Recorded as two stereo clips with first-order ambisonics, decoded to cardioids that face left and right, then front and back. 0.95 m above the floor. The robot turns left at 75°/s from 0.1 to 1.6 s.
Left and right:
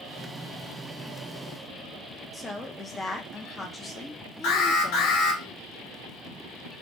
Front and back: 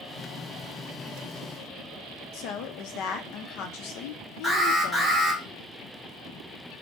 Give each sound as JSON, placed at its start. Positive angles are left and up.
{"t": 2.3, "sound": "a woman speaking", "azimuth_deg": 15, "distance_m": 0.6}
{"t": 4.4, "sound": "an alarm", "azimuth_deg": 95, "distance_m": 2.0}